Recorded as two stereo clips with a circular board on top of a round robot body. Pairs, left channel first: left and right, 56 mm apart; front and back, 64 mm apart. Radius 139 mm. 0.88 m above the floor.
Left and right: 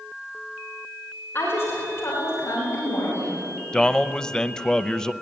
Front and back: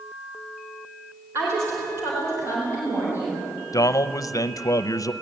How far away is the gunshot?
No gunshot in this recording.